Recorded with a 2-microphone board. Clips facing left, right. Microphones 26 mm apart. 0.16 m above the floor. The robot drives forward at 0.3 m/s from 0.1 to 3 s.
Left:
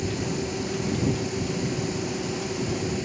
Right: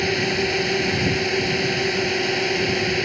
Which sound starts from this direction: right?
A drone, at 0.0 s.